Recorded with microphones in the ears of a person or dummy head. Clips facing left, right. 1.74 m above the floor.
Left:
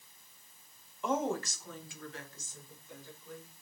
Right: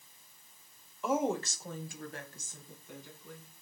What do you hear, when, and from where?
1.0 s a woman speaking: 5° left (ahead or behind), 0.9 m; by 3.6 s 60° right (ahead or behind), 3.5 m